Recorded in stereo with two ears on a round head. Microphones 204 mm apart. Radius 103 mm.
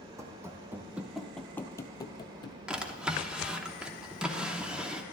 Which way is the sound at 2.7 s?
5° right (ahead or behind).